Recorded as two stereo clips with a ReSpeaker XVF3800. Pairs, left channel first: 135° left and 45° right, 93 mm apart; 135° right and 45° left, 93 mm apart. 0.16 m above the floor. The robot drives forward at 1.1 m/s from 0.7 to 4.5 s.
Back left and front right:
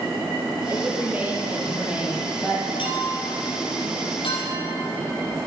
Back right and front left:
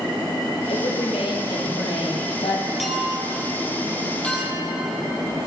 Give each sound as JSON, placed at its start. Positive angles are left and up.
{"t": 0.7, "sound": "a woman speaking", "azimuth_deg": -110, "distance_m": 5.0}
{"t": 2.8, "sound": "a clink", "azimuth_deg": 135, "distance_m": 3.5}